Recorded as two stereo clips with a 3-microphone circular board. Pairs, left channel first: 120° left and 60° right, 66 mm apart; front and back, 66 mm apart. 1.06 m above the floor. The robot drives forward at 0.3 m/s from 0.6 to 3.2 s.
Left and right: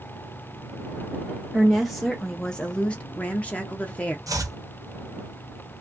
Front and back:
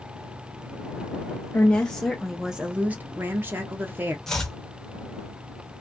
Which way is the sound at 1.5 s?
20° left.